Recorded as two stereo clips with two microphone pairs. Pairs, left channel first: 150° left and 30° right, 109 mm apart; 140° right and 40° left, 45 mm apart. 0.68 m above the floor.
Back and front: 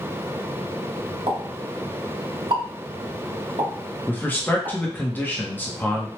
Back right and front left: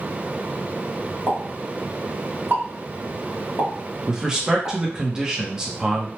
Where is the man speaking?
100° left, 0.8 m.